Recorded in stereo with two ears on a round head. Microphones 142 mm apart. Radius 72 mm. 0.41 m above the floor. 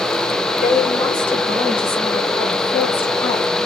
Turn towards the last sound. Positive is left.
turn(degrees=15)  # may be behind; listen again after turning